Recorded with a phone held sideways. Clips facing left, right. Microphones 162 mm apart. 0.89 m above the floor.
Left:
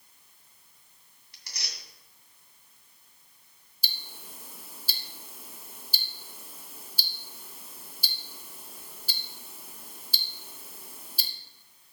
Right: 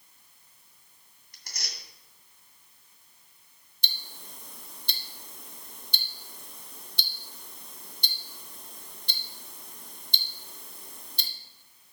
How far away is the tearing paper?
About 2 m.